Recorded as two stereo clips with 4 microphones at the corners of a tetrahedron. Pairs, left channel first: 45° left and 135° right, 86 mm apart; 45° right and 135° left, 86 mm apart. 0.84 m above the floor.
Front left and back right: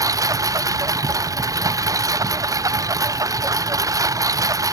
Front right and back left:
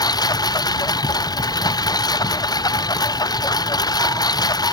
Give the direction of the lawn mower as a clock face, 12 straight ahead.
3 o'clock.